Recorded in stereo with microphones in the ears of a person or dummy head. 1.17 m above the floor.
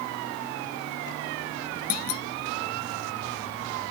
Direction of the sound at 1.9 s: 60° left (ahead or behind).